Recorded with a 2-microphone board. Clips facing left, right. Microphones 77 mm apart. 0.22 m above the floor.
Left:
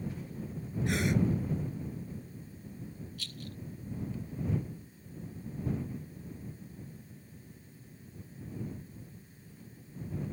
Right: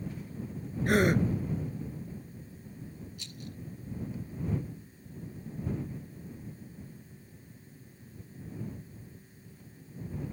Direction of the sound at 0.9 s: 45° right (ahead or behind).